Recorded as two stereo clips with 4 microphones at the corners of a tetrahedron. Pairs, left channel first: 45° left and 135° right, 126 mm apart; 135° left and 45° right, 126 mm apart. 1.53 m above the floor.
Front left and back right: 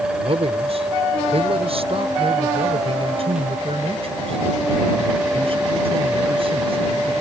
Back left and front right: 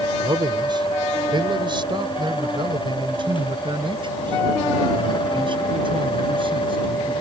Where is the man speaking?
100° right; by 7.1 s 95° right.